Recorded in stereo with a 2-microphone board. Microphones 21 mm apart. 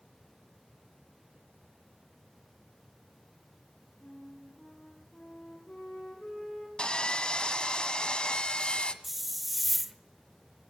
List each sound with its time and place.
4.0 s a flute: 70° left (ahead or behind), 9 m
6.8 s sawing: 45° left (ahead or behind), 1.3 m
9.0 s a hiss: 5° right (ahead or behind), 1.1 m